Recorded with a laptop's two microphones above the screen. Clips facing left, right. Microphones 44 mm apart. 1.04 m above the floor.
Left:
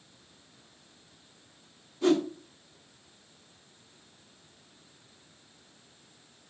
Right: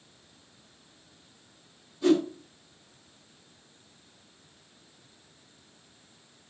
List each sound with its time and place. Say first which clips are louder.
2.0 s a whoosh: right 2 dB; 60° left (ahead or behind), 1.6 m